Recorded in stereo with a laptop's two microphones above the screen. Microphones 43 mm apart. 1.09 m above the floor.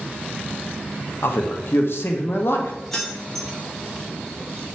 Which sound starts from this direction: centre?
Keys jangling, at 2.9 s.